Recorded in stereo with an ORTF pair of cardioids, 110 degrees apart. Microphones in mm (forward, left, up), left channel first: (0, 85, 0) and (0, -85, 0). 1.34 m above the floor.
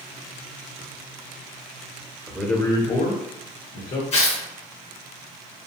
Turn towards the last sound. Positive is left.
turn(degrees=40)